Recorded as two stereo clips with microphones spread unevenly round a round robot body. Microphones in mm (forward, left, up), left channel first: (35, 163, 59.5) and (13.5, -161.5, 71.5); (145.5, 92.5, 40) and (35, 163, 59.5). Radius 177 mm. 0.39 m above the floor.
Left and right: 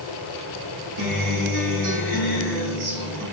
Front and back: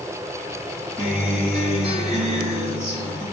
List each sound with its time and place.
1.0 s a guitar: 120° right, 4.5 m